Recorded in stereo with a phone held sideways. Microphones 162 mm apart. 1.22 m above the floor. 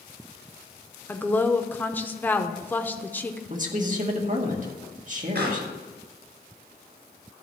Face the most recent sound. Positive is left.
turn(degrees=-75)  # may be behind; listen again after turning